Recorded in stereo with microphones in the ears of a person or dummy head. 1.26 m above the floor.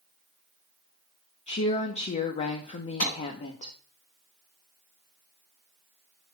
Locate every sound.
1.5 s a woman speaking: 25° left (ahead or behind), 0.9 m
3.0 s a clap: 35° left (ahead or behind), 6.5 m